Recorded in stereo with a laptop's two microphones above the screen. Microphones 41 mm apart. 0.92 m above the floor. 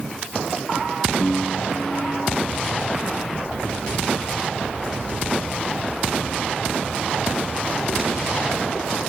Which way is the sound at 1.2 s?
45° left (ahead or behind).